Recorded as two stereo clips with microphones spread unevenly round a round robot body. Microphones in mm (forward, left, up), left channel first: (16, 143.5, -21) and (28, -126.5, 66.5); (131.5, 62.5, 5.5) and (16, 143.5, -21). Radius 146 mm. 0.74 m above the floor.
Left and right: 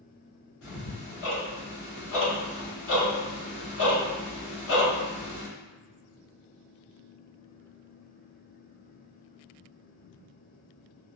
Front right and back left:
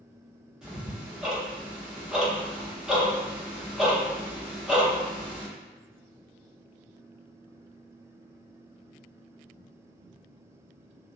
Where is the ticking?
60° left, 1.2 m.